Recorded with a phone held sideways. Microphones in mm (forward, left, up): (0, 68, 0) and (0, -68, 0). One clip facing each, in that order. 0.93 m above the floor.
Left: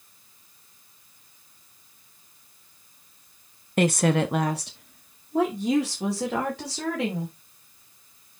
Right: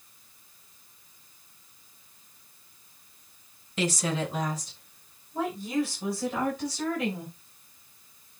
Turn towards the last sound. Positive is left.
turn(degrees=85)